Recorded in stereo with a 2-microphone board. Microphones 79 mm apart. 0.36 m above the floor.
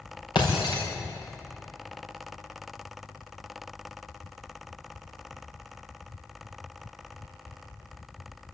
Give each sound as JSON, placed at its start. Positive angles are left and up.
{"t": 0.3, "sound": "breaking glass", "side_deg": 80, "distance_m": 6.5}